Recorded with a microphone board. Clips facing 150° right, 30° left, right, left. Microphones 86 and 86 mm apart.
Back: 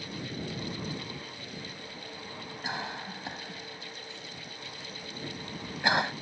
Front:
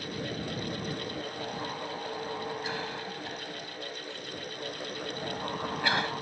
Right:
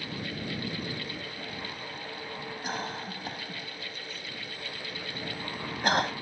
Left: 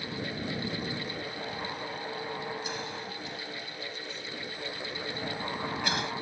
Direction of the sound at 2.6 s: 90° right.